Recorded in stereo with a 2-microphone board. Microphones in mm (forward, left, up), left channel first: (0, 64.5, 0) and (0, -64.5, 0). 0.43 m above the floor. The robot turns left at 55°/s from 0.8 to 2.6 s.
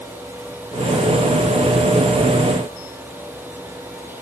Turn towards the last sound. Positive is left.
No sound to turn to.